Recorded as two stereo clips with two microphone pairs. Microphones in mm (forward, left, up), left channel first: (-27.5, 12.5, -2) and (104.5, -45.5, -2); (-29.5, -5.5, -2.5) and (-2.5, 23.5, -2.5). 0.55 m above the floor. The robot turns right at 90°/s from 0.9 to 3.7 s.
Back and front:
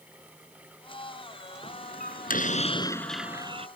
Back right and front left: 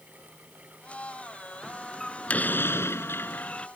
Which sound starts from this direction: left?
A door slam, at 1.6 s.